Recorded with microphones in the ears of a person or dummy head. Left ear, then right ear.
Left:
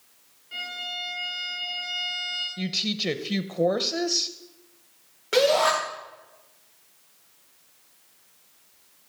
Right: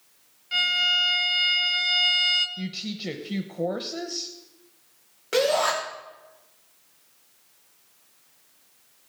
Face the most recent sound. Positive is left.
turn(degrees=-5)  # may be behind; listen again after turning